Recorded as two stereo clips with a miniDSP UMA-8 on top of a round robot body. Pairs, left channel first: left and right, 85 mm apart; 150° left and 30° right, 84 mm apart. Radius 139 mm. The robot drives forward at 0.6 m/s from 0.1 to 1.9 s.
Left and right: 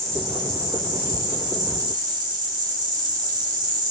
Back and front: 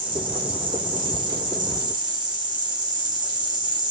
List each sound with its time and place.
0.0 s an insect: 45° right, 4.5 m; by 3.9 s 55° right, 3.5 m